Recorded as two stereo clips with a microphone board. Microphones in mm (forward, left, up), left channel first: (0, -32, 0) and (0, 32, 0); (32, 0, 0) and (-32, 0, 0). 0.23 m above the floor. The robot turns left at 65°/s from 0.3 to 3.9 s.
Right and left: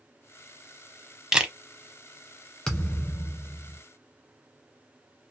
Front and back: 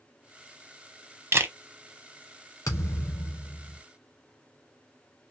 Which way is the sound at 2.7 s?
15° right.